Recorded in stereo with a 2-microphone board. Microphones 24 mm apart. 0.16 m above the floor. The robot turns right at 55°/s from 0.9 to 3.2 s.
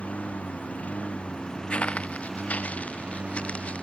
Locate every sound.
0.0 s a lawn mower: 105° left; by 3.8 s 125° right
1.7 s footsteps: 60° left (ahead or behind)